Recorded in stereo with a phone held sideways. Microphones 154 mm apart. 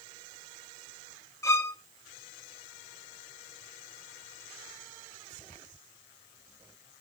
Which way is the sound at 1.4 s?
20° left (ahead or behind).